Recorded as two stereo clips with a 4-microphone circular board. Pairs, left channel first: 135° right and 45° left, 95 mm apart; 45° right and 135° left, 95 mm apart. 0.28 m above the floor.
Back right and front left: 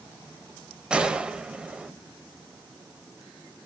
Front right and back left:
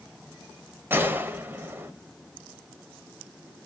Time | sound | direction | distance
0.9 | a gunshot | 110° left | 0.7 m